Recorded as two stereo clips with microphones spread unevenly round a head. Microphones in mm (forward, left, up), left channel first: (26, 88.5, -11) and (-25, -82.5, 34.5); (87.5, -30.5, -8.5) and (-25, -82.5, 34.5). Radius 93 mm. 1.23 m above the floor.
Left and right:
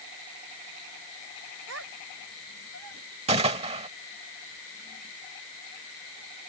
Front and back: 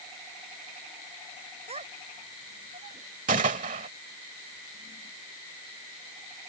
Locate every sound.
1.7 s a child speaking: 120° right; by 3.0 s 125° right
3.3 s a gunshot: 160° right